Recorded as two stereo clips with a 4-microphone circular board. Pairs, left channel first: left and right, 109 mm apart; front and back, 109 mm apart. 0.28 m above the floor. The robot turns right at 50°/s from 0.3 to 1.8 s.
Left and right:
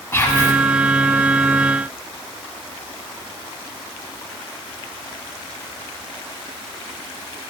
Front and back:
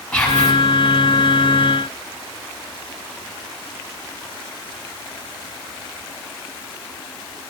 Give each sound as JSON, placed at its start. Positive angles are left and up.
{"t": 0.1, "sound": "whispering", "azimuth_deg": 70, "distance_m": 1.2}